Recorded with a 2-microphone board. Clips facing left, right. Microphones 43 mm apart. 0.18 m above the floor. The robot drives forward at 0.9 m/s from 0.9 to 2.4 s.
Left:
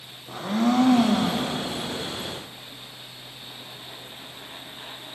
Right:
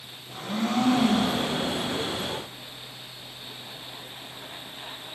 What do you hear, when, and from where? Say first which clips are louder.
0.3 s a blender: left 5 dB; 80° left, 5 m; by 1.6 s 70° left (ahead or behind), 5.5 m